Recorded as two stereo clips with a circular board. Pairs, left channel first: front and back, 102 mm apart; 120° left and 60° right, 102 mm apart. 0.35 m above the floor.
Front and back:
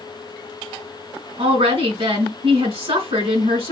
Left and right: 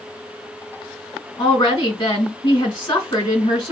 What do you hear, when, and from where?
1.4 s a woman speaking: 160° left, 4 m